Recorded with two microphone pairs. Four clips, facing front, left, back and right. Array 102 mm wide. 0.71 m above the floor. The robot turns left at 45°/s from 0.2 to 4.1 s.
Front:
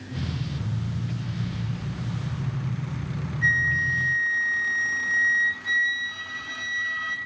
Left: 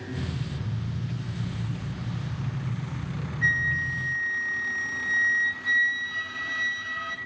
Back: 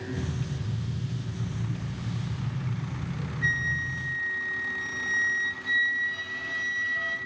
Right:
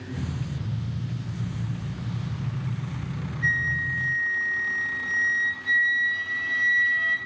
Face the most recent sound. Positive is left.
turn(degrees=40)